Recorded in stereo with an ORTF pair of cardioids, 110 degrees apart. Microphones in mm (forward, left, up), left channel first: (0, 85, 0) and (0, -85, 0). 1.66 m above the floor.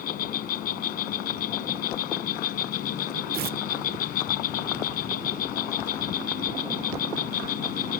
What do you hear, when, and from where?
0.0 s an insect: 65° left
3.3 s tearing paper: 65° right